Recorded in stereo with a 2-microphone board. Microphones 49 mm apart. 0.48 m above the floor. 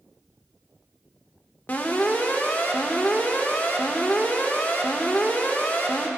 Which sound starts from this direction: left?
An alarm, at 1.7 s.